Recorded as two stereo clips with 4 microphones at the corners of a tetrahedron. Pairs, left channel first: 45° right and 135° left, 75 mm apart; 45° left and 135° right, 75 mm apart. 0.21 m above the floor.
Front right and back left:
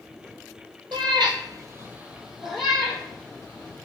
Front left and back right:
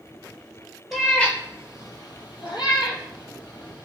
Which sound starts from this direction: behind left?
A cat meowing, at 0.9 s.